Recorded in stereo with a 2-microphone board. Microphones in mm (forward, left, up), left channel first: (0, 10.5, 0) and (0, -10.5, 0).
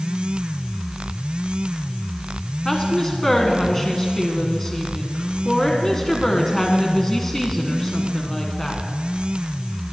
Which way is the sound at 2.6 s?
25° left (ahead or behind).